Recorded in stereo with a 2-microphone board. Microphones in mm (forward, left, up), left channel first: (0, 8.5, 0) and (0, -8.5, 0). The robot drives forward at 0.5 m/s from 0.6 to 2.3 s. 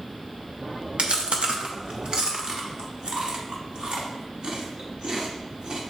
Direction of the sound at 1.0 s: 80° right.